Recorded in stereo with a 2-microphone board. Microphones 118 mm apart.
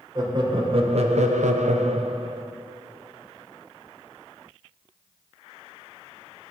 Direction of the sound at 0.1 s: 35° right (ahead or behind).